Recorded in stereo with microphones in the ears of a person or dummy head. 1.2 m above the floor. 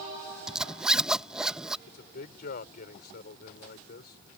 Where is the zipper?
5° right (ahead or behind).